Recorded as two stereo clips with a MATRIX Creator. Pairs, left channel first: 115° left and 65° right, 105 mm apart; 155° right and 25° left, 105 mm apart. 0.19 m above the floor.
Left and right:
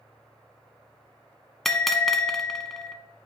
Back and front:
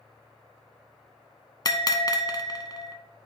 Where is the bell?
160° right, 0.8 m.